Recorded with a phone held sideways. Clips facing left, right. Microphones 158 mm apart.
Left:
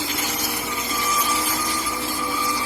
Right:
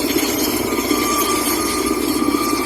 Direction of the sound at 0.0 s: 65° right (ahead or behind).